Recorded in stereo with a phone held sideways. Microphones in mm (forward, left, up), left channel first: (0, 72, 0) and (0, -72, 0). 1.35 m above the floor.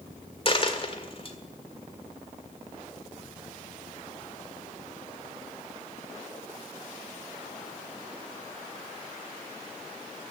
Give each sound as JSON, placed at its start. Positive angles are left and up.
{"t": 0.5, "sound": "a dropped coin", "side_deg": 40, "distance_m": 1.7}